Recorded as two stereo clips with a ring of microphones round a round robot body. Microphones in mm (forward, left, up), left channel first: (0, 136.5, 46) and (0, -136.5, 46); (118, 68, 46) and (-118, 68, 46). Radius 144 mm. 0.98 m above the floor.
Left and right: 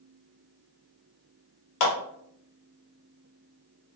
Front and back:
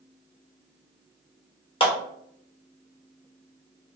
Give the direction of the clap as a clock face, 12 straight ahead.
10 o'clock.